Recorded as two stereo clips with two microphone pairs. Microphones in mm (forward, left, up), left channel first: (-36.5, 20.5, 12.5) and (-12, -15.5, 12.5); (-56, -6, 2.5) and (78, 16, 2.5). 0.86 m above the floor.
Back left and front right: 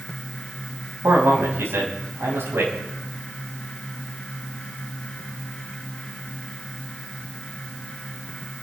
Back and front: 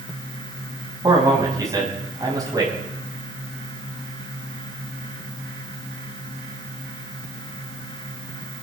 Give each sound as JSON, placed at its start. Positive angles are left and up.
{"t": 1.0, "sound": "a man speaking", "azimuth_deg": -50, "distance_m": 6.0}